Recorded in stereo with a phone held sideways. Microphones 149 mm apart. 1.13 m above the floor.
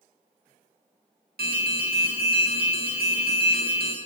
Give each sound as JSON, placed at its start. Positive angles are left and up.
{"t": 1.4, "sound": "an alarm", "side_deg": -80, "distance_m": 1.6}